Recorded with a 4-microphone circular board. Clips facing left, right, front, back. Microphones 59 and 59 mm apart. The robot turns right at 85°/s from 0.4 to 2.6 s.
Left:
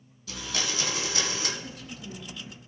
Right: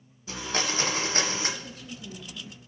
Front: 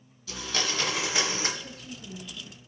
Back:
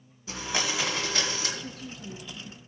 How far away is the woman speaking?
About 3 m.